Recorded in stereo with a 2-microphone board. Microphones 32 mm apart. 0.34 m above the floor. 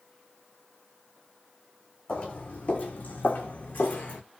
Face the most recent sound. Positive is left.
turn(degrees=60)  # may be behind; listen again after turning